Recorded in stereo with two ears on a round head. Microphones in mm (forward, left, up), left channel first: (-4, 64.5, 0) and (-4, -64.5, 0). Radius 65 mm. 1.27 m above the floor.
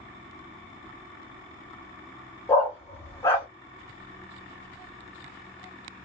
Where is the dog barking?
20° left (ahead or behind), 0.9 m.